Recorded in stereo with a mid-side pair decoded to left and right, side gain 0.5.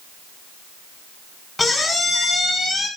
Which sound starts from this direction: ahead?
A squeak, at 1.6 s.